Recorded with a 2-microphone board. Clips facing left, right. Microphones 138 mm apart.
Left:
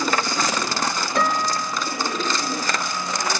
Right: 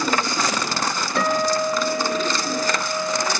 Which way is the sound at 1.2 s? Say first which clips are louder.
Right 3 dB; centre (ahead or behind).